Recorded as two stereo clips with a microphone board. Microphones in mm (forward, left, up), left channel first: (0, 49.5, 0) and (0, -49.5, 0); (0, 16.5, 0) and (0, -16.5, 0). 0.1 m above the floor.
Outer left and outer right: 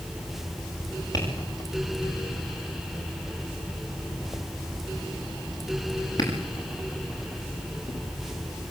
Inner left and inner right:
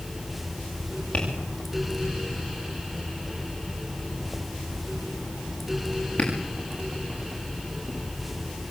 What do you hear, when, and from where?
1.1 s tapping: 45° left (ahead or behind), 8 m